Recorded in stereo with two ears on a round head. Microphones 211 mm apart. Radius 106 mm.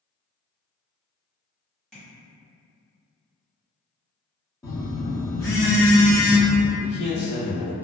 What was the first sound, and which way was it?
Tapping, centre (ahead or behind).